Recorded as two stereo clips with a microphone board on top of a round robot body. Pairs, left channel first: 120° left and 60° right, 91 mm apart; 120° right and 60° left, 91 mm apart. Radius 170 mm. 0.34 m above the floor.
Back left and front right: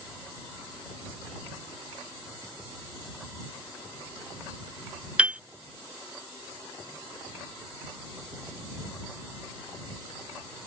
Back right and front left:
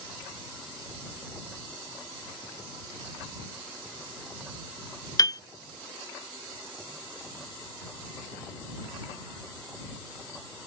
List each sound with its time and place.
5.2 s a piano: 130° right